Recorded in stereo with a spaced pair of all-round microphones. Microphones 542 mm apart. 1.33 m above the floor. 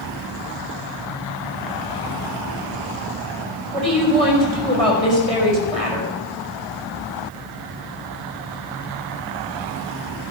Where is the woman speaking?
90° right, 5 m.